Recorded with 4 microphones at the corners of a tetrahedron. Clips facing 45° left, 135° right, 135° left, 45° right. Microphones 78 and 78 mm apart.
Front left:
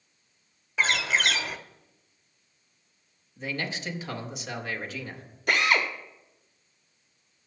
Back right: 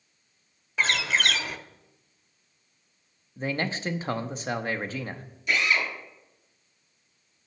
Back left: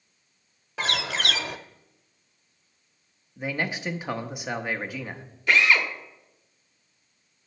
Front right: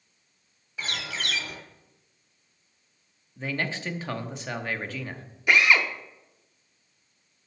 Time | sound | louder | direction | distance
0.8 | a bird | even, back left 6 dB | 135° left | 0.8 m
3.4 | a man speaking | back right 4 dB, back left 1 dB | 155° right | 0.9 m
5.5 | a drill | front left 2 dB, even | 25° left | 1.2 m